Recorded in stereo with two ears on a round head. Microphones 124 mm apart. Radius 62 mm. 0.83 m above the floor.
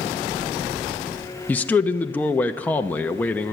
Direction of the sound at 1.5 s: 10° left (ahead or behind).